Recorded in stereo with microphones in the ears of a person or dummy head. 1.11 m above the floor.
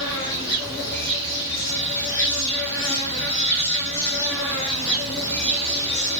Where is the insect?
15° left (ahead or behind), 1.4 m.